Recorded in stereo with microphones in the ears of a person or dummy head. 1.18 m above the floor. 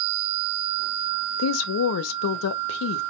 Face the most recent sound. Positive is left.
turn(degrees=75)  # may be behind; listen again after turning